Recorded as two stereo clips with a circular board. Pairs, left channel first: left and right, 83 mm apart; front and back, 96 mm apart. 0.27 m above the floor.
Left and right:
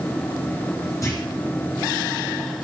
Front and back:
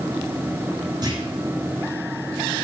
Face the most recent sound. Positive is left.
turn(degrees=140)